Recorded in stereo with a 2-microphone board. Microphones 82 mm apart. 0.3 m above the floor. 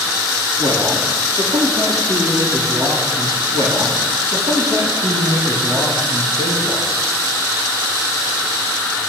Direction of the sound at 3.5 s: 65° right (ahead or behind).